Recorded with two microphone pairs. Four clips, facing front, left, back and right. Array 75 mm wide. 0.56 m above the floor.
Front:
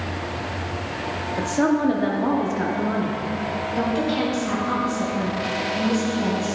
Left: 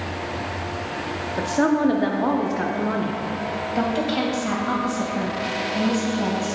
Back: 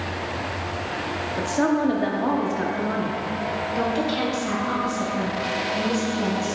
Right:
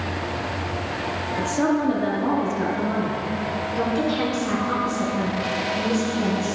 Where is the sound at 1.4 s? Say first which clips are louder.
Left 2 dB, front 1 dB; 80° left, 0.6 m.